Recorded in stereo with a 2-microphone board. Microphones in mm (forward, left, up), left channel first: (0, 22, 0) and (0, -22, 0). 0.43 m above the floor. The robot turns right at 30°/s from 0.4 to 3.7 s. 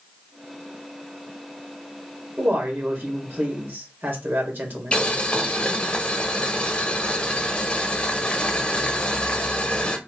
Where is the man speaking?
125° right, 1.7 m; by 5.0 s 85° right, 1.7 m.